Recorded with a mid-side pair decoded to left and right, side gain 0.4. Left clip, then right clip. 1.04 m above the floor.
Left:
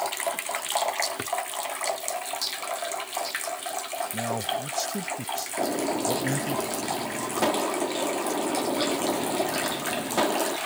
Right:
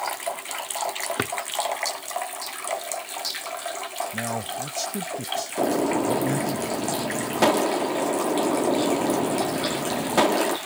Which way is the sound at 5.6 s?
45° right.